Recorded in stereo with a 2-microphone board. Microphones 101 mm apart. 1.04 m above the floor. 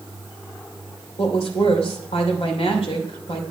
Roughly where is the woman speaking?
Left.